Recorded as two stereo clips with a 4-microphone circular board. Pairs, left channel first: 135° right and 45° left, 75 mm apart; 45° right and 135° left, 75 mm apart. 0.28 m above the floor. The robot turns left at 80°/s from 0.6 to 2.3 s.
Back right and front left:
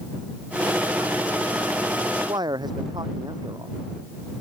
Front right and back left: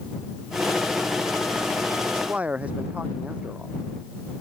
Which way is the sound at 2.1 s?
80° left.